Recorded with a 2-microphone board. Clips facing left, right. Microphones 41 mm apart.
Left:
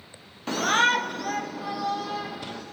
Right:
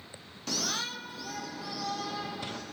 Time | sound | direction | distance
0.5 | a shout | 30° left (ahead or behind) | 0.9 m